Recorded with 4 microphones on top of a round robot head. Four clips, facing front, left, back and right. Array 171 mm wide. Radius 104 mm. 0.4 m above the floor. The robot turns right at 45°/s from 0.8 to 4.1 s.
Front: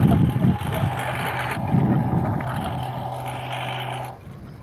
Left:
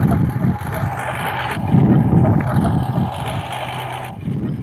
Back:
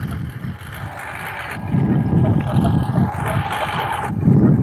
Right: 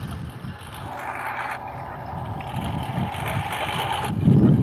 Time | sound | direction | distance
0.0 | a lawn mower | 55° left | ?